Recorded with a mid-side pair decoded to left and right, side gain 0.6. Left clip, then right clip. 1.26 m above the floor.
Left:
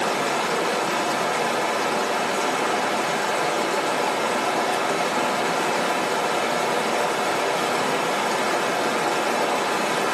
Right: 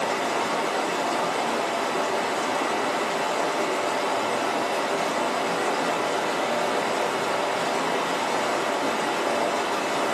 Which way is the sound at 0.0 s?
60° left.